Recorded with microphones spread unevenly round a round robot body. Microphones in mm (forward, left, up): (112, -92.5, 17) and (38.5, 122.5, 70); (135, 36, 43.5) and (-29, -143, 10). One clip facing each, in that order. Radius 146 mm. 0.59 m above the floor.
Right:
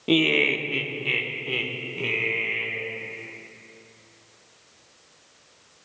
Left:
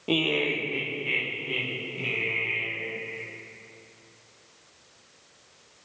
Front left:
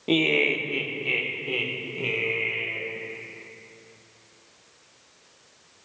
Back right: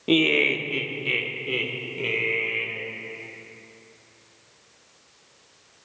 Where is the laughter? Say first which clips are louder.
Right 5 dB, back right 2 dB; 80° right, 0.7 m; by 2.8 s 65° right, 2 m.